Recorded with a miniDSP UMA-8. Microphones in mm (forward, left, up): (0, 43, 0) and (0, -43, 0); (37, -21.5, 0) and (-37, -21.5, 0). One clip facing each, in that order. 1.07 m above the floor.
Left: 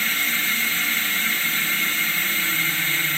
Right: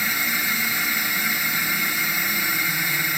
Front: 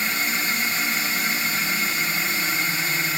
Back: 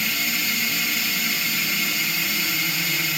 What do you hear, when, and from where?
0.0 s a drone: 25° right